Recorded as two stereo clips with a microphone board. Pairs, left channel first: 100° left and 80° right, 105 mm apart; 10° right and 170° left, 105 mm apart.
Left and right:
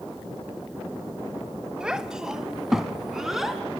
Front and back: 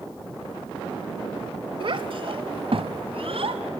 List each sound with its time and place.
1.8 s a child speaking: 160° right, 1.4 m; by 3.6 s 165° right, 2.5 m